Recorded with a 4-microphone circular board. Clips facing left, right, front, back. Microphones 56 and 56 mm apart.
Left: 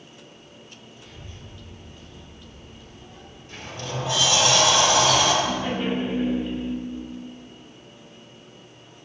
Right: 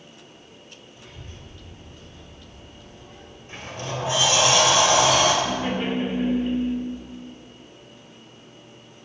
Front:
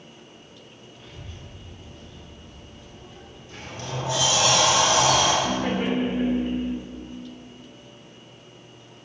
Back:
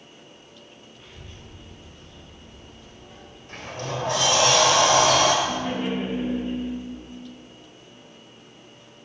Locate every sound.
1.0 s a child speaking: 100° right, 2.5 m; by 3.4 s 120° right, 4 m
3.5 s a sliding door: 155° right, 1.8 m
5.5 s laughter: 25° right, 1.8 m